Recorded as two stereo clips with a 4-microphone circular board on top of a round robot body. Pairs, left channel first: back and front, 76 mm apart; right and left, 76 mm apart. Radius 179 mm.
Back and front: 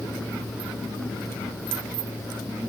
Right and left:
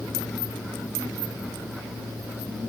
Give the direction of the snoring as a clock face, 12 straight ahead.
I don't hear snoring.